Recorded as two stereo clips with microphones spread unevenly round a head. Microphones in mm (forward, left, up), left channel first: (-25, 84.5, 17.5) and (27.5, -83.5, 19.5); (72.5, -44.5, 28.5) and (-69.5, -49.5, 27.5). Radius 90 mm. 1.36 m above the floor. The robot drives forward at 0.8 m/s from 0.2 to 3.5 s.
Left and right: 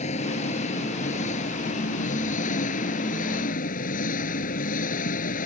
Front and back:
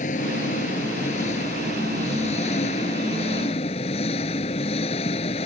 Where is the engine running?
55° left; by 5.5 s 60° left.